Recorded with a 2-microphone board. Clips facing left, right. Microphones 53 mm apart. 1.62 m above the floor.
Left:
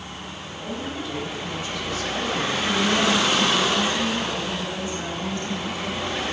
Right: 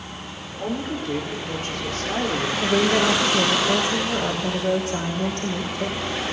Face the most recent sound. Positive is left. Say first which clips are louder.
# right 3 dB
turn(degrees=-80)